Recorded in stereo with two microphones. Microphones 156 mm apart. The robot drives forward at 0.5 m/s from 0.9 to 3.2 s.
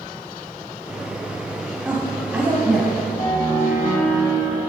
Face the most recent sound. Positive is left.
turn(degrees=45)  # may be behind; listen again after turning